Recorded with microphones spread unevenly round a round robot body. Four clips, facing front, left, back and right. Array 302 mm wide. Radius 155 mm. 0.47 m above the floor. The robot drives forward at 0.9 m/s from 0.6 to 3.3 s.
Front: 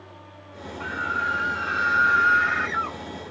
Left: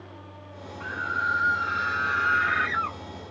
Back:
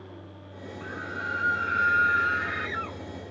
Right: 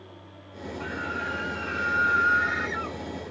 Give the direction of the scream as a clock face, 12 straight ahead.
11 o'clock.